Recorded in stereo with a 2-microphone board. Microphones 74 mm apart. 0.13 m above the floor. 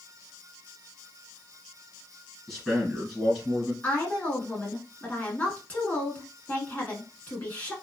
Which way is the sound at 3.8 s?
25° left (ahead or behind).